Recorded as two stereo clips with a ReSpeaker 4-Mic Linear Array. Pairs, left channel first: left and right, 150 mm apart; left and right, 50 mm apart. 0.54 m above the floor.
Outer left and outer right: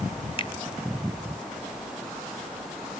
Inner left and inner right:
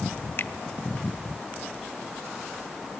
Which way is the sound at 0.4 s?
35° left (ahead or behind).